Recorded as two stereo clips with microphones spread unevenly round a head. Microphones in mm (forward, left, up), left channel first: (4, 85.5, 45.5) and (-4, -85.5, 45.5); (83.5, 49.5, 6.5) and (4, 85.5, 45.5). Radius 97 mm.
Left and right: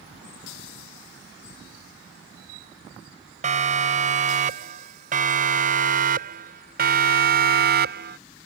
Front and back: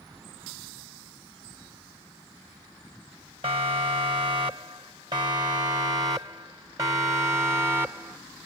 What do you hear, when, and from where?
3.4 s a siren: 145° right; by 8.2 s 120° right